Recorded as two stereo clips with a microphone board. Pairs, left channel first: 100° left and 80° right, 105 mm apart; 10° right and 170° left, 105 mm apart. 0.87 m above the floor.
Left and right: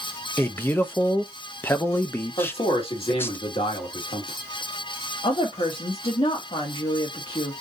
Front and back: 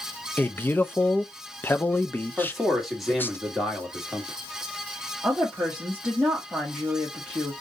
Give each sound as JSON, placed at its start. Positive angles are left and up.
{"t": 0.4, "sound": "a man speaking", "azimuth_deg": 50, "distance_m": 0.6}
{"t": 2.4, "sound": "a man speaking", "azimuth_deg": 85, "distance_m": 1.8}
{"t": 5.2, "sound": "a woman speaking", "azimuth_deg": 85, "distance_m": 1.7}